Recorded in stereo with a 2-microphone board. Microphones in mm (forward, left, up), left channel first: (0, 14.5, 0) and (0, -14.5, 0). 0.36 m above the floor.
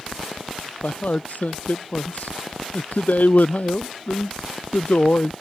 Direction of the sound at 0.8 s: 65° left (ahead or behind).